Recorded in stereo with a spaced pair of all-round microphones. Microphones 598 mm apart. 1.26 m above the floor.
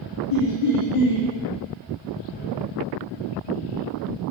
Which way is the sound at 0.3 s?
60° left (ahead or behind).